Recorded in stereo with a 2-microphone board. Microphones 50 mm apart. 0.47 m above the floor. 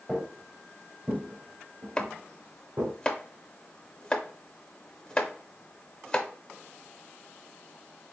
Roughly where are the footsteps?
Centre.